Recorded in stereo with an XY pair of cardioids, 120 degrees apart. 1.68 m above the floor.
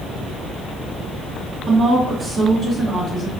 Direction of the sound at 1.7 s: 45° right.